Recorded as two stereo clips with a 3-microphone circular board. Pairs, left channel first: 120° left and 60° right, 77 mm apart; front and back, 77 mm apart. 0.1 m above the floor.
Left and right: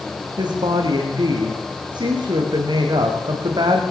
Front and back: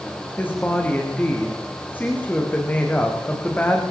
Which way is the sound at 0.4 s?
70° right.